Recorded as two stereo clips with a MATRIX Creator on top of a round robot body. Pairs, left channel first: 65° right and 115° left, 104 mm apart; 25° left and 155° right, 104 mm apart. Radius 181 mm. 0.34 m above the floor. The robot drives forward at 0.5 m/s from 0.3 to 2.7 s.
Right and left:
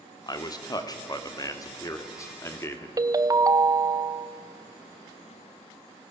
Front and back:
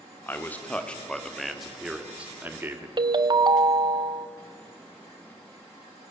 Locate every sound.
0.3 s a man speaking: 40° right, 1.9 m; by 2.9 s 105° right, 1.7 m
3.0 s a ringtone: 165° left, 0.9 m